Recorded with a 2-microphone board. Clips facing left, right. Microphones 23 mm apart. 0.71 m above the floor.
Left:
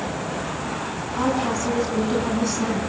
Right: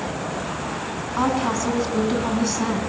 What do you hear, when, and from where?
1.2 s a woman speaking: 15° right (ahead or behind), 7 m